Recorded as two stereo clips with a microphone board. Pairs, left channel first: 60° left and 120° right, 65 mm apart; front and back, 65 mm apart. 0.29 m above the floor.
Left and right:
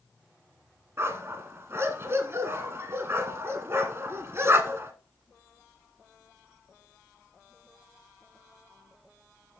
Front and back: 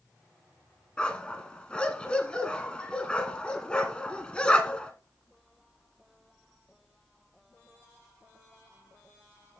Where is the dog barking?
75° right, 1.2 m.